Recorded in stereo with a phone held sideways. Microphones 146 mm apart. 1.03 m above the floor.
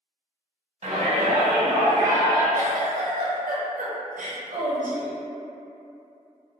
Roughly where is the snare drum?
No snare drum in this recording.